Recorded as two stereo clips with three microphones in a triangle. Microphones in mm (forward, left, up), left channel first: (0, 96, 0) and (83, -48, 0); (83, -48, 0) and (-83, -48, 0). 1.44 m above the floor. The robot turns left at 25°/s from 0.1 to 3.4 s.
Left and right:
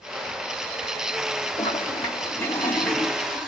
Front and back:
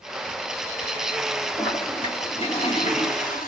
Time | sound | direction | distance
1.6 | a toilet flushing | 70° left | 2 m